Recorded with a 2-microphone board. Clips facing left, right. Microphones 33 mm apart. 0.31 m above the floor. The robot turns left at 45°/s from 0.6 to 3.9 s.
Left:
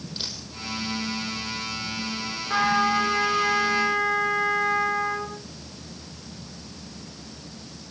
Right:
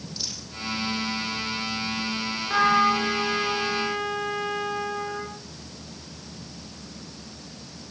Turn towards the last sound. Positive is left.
turn(degrees=115)